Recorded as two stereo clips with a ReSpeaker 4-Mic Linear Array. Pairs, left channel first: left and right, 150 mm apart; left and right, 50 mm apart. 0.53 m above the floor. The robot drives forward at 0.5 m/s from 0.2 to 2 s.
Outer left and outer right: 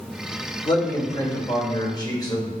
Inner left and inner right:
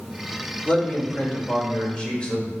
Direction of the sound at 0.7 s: 35° left (ahead or behind).